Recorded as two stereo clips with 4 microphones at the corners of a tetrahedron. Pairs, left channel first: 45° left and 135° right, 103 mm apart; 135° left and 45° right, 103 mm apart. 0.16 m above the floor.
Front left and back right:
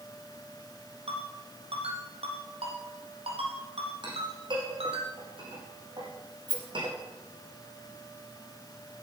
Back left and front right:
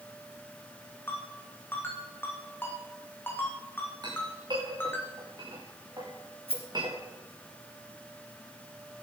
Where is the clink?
95° right, 7 m.